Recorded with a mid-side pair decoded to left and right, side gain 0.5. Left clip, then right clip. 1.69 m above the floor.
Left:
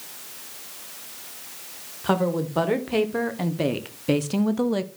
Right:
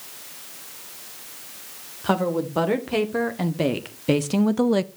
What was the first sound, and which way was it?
A woman speaking, 5° right.